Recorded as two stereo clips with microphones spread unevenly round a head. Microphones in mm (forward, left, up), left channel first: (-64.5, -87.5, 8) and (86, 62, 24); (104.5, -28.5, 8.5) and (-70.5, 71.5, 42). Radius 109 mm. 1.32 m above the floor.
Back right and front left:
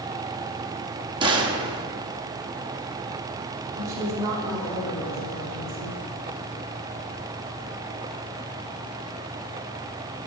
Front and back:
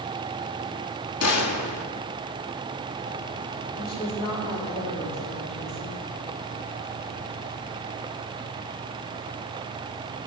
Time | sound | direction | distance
1.2 | a gunshot | 25° right | 1.3 m
3.8 | a woman speaking | 30° right | 4.5 m